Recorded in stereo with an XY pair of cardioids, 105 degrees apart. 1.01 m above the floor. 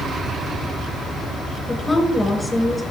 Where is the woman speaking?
5° left, 4.5 m.